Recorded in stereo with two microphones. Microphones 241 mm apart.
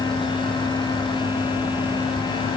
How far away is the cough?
No cough in this recording.